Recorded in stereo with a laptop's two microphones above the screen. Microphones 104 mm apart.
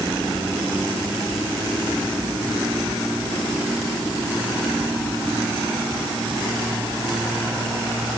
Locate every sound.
Only background noise.